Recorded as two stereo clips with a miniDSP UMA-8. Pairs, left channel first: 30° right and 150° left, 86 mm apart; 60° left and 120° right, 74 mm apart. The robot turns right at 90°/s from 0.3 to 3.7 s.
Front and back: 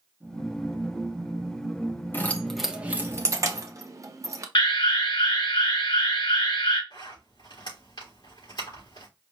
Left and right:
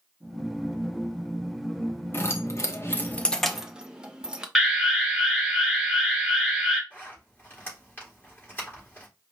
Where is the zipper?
Straight ahead, 3.5 m.